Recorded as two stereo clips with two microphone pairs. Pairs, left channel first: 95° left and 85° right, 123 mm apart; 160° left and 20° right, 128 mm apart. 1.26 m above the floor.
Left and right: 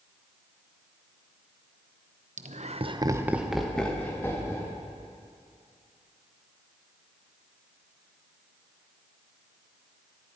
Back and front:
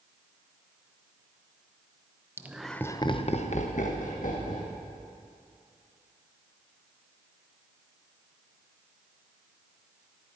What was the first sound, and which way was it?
Laughter, 95° right.